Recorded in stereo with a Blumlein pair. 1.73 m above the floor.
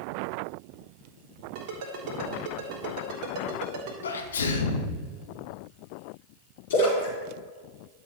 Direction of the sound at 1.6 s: 45° right.